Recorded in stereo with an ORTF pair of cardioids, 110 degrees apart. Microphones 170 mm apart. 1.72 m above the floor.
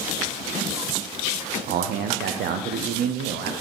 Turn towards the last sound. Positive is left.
turn(degrees=-65)